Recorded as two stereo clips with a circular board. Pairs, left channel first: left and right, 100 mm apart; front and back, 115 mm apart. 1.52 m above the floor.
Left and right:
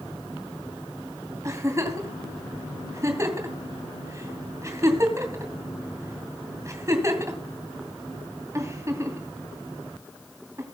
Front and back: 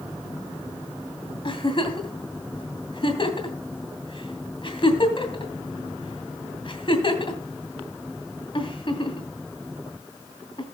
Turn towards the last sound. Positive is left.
turn(degrees=-35)